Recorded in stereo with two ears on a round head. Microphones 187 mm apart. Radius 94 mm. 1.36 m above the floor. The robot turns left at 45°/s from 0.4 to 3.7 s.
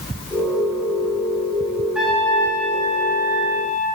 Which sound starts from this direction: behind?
A trumpet, at 1.9 s.